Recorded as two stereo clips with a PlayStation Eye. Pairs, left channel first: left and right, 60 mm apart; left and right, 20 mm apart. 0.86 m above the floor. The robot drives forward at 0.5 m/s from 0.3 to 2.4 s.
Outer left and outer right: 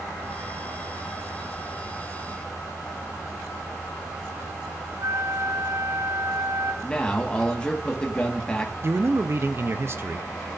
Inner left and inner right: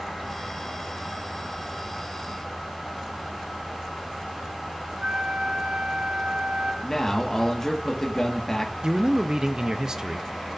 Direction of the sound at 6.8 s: 15° left (ahead or behind).